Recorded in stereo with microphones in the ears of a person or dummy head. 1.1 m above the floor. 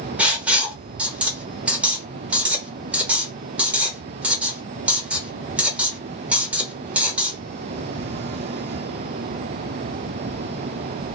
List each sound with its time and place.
0.2 s writing: 5° right (ahead or behind), 0.9 m